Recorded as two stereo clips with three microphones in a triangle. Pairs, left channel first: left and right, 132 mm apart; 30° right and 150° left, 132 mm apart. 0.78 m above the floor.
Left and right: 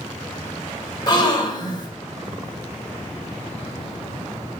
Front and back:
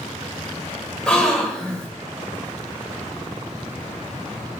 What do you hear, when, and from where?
1.1 s a gasp: 50° left, 0.6 m